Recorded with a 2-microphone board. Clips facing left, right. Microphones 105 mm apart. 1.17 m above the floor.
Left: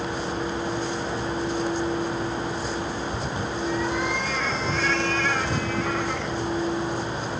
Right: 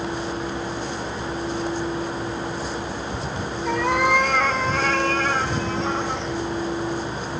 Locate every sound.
3.6 s a cat meowing: 70° right (ahead or behind), 2 m; by 6.3 s 20° right (ahead or behind), 2.5 m